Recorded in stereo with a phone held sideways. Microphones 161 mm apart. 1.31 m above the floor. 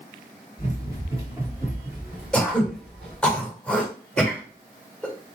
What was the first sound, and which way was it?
Running footsteps, 25° right (ahead or behind).